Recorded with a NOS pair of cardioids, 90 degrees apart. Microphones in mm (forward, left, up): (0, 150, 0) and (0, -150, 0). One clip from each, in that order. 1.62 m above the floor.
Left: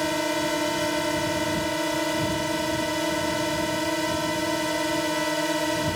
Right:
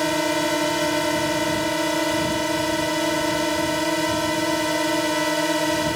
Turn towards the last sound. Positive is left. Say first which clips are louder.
# right 4 dB
turn(degrees=-25)